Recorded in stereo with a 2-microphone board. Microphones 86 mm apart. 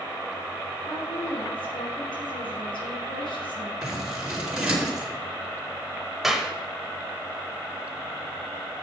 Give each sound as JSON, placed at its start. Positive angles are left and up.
{"t": 0.9, "sound": "a woman speaking", "side_deg": 70, "distance_m": 3.5}
{"t": 3.8, "sound": "scissors", "side_deg": -10, "distance_m": 3.5}
{"t": 6.2, "sound": "a clap", "side_deg": -5, "distance_m": 1.0}